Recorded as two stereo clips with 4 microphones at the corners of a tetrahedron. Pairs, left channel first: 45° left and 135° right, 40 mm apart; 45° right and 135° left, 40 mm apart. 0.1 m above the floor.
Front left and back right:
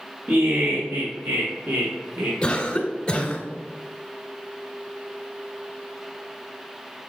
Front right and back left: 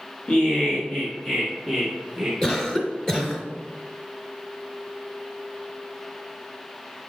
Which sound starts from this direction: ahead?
A cough, at 2.4 s.